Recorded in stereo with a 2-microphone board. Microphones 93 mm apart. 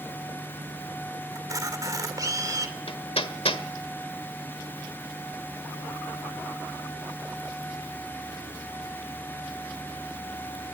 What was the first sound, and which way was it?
A camera shutter, 40° right (ahead or behind).